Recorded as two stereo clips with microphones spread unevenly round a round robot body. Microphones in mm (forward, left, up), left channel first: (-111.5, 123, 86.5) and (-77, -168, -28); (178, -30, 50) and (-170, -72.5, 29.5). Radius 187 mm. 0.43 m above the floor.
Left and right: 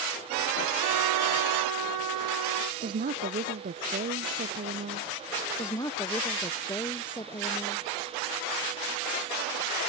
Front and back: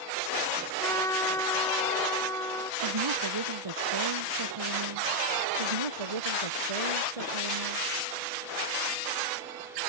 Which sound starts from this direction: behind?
A woman speaking, at 5.6 s.